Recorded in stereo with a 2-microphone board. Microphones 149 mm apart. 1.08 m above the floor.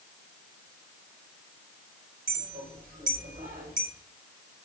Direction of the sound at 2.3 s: 90° right.